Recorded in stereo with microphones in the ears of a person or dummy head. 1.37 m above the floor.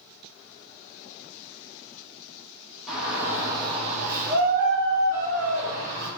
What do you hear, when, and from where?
2.9 s a shout: 5° right (ahead or behind), 1.0 m; by 6.1 s 65° right (ahead or behind), 1.6 m